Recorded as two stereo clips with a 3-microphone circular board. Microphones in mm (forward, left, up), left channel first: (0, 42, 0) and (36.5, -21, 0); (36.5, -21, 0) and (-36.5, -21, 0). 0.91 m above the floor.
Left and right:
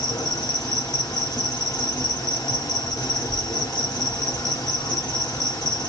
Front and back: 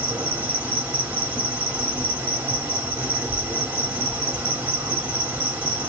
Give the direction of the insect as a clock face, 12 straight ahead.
8 o'clock.